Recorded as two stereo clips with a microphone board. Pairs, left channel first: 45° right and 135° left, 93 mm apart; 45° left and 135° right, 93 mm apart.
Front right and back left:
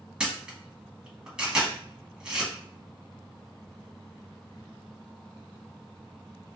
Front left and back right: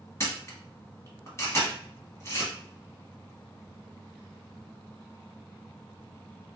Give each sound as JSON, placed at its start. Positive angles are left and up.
{"t": 0.2, "sound": "a camera shutter", "azimuth_deg": 65, "distance_m": 1.2}